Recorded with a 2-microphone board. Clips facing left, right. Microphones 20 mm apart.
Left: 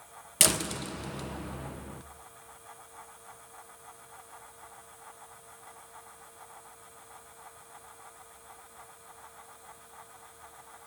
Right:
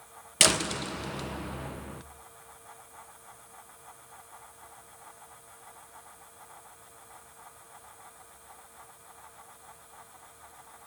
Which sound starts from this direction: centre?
A door slam, at 0.4 s.